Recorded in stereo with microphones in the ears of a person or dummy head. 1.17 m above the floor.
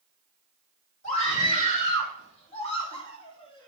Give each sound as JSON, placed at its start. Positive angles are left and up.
{"t": 1.0, "sound": "a scream", "side_deg": 40, "distance_m": 4.0}